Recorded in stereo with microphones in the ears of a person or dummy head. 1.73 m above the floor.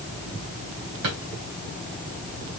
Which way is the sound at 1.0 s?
65° right (ahead or behind).